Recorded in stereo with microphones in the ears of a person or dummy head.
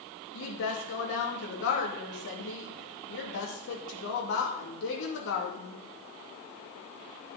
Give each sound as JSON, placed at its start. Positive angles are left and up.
{"t": 0.3, "sound": "a woman speaking", "side_deg": 65, "distance_m": 2.5}